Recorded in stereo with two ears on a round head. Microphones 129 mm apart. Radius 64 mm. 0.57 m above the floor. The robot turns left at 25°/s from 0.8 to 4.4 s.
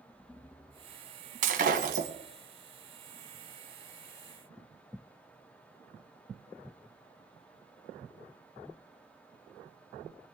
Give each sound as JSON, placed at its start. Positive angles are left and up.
{"t": 1.4, "sound": "breaking glass", "side_deg": -60, "distance_m": 2.0}